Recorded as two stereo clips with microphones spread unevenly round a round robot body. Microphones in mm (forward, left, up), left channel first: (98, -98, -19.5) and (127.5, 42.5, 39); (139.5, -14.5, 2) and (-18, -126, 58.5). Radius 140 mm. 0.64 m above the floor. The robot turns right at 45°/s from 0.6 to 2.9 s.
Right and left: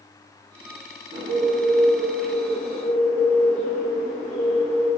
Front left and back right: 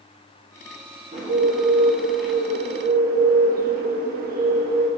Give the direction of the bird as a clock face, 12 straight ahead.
7 o'clock.